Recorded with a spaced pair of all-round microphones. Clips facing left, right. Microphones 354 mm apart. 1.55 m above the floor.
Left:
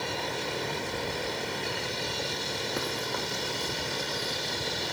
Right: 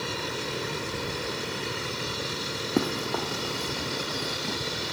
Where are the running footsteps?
60° right (ahead or behind); by 4.6 s 70° right (ahead or behind).